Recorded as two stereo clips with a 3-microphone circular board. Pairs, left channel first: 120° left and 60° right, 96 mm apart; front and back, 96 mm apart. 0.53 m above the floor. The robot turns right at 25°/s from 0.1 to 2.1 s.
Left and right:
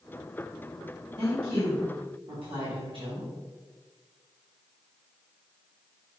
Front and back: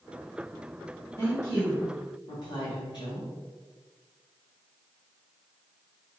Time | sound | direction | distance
1.2 | a woman speaking | 60° right | 1.9 m